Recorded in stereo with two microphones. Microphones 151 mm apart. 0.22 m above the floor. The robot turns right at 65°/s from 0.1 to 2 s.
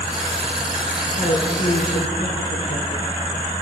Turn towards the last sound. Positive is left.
turn(degrees=80)